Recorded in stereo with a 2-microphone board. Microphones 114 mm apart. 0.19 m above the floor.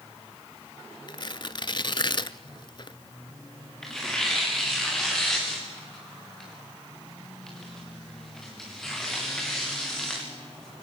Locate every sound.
1.1 s tearing paper: 45° left (ahead or behind), 0.6 m
3.8 s tearing paper: 5° left (ahead or behind), 5 m